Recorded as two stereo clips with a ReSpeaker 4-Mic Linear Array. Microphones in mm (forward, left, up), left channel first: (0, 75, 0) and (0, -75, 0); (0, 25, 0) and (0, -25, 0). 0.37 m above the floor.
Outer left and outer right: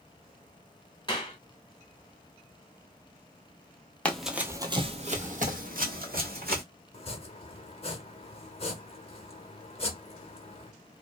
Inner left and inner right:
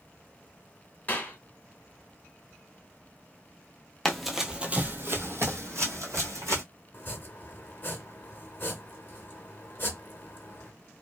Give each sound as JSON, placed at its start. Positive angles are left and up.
{"t": 1.1, "sound": "a clap", "side_deg": 30, "distance_m": 0.9}
{"t": 4.0, "sound": "running footsteps", "side_deg": 10, "distance_m": 0.6}
{"t": 6.9, "sound": "chopping", "side_deg": 40, "distance_m": 0.7}